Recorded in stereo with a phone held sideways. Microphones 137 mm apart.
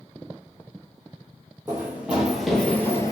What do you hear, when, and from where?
1.7 s running footsteps: 15° right (ahead or behind), 1.5 m; by 3.1 s 25° left (ahead or behind), 1.0 m